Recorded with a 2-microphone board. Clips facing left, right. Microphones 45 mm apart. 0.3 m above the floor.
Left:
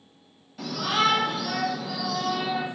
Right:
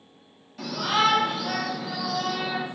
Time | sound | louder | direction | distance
0.6 | a shout | right 1 dB | 5° left (ahead or behind) | 1.3 m